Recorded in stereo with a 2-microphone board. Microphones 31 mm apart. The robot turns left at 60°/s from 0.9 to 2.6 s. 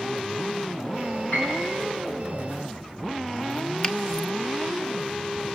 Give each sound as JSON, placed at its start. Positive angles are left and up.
{"t": 1.3, "sound": "a piano", "side_deg": 75, "distance_m": 9.5}
{"t": 3.8, "sound": "a finger snap", "side_deg": 35, "distance_m": 1.0}